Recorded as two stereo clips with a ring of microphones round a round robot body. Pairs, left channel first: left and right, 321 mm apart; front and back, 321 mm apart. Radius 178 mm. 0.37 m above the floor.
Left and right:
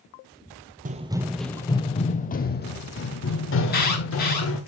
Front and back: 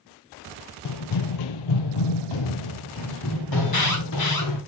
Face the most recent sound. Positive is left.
turn(degrees=30)